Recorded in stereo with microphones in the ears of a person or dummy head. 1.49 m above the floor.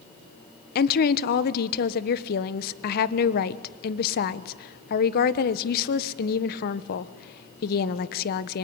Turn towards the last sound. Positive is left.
turn(degrees=50)  # may be behind; listen again after turning